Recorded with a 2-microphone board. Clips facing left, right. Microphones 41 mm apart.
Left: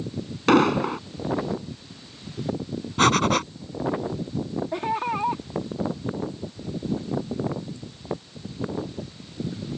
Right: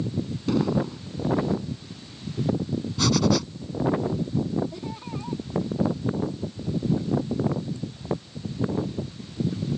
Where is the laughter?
65° left (ahead or behind).